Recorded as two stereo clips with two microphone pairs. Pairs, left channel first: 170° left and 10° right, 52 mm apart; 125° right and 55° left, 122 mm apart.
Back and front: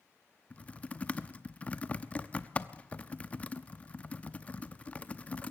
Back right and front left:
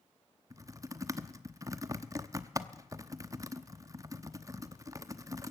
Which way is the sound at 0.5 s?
115° left.